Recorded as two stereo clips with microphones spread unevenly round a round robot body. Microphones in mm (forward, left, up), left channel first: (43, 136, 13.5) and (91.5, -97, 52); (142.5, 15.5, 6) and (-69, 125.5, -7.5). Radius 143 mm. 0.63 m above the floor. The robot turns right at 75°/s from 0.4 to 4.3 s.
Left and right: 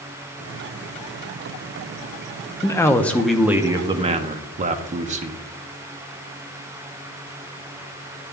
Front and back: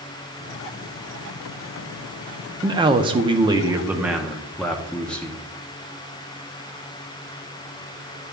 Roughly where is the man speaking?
Behind left.